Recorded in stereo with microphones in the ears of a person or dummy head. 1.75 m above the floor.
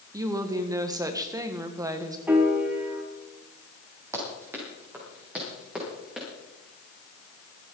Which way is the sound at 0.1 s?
15° right (ahead or behind).